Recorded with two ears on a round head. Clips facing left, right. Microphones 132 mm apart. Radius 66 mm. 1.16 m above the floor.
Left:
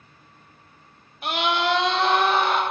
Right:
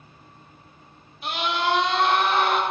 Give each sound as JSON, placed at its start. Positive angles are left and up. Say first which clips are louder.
{"t": 1.2, "sound": "a scream", "louder": "left 2 dB", "side_deg": 45, "distance_m": 1.0}